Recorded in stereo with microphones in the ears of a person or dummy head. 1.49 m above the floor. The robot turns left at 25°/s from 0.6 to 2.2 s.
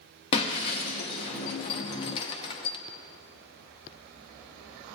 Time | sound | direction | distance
0.3 | breaking glass | 25° left (ahead or behind) | 0.6 m